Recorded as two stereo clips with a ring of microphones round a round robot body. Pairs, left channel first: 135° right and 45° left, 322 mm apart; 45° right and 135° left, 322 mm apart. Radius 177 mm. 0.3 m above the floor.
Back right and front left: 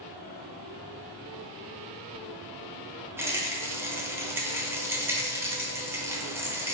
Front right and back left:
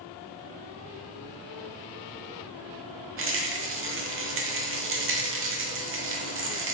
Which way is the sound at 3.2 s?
125° left.